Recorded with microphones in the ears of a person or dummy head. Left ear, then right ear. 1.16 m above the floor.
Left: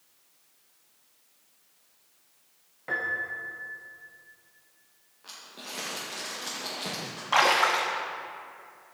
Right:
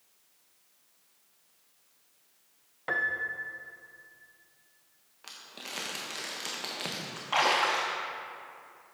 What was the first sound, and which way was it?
A piano, 35° right (ahead or behind).